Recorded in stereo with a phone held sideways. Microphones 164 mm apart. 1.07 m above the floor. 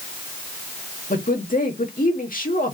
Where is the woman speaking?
60° left (ahead or behind), 1.9 m.